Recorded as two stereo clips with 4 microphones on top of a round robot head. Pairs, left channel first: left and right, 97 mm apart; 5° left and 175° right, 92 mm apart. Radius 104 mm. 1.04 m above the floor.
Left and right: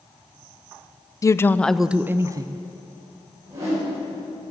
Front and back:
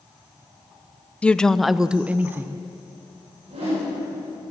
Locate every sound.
1.2 s a woman speaking: 75° left, 0.5 m; by 2.6 s 115° right, 0.6 m
3.5 s a whoosh: 150° right, 5.5 m